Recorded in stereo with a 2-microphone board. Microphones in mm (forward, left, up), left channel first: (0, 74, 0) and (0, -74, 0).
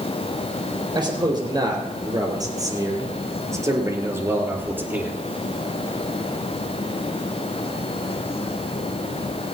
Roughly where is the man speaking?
Right.